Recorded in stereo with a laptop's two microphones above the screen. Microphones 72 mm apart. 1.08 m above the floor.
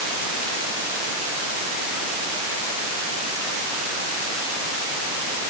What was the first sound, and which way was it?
Only background noise.